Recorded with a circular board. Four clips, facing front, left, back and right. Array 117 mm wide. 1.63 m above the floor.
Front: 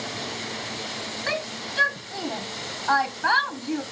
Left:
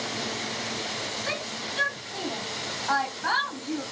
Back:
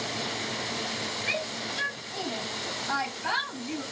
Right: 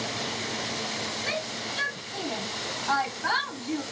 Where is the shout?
10° left, 0.9 m.